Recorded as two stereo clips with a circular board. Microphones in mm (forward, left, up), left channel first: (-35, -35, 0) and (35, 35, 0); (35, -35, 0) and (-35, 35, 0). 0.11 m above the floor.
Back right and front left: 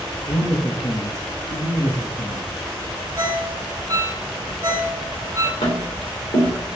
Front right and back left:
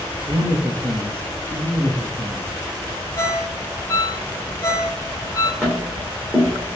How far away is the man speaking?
About 2.5 m.